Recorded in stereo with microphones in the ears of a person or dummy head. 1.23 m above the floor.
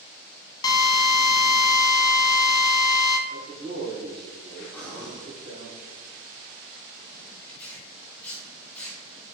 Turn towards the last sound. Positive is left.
turn(degrees=10)  # may be behind; listen again after turning